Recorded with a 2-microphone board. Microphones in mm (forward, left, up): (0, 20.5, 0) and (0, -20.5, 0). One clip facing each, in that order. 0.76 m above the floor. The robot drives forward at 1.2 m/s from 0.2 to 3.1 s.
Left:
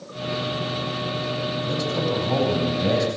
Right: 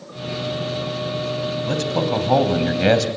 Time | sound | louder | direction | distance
1.7 | a man speaking | right 4 dB | 60° right (ahead or behind) | 4 m